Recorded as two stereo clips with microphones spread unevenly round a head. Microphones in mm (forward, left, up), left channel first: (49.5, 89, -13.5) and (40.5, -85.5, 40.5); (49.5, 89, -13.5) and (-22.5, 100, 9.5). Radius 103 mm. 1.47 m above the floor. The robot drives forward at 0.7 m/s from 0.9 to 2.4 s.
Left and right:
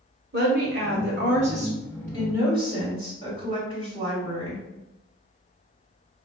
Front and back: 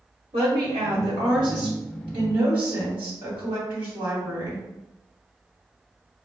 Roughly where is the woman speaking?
Behind right.